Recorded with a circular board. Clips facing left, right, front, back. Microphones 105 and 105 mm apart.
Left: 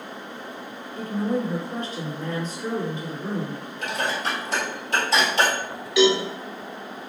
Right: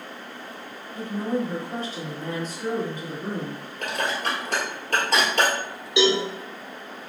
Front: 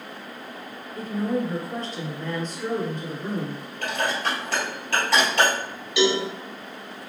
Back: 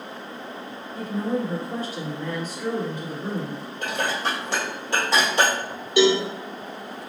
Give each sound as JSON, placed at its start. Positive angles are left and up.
{"t": 0.9, "sound": "a woman speaking", "azimuth_deg": -100, "distance_m": 1.9}
{"t": 3.8, "sound": "dishes clattering", "azimuth_deg": -110, "distance_m": 1.8}
{"t": 6.0, "sound": "a cowbell", "azimuth_deg": -145, "distance_m": 1.2}